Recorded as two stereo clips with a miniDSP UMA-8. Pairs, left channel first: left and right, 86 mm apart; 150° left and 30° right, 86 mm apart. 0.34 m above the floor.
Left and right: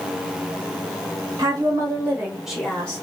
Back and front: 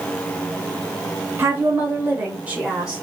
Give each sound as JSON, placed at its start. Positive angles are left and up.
{"t": 1.4, "sound": "a woman speaking", "azimuth_deg": -80, "distance_m": 1.5}